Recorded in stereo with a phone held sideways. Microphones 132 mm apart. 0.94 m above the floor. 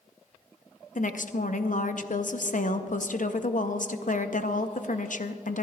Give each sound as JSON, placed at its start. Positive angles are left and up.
{"t": 0.9, "sound": "a woman speaking", "side_deg": 65, "distance_m": 0.7}